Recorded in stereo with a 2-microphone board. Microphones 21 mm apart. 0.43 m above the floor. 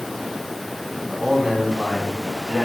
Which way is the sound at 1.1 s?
30° right (ahead or behind).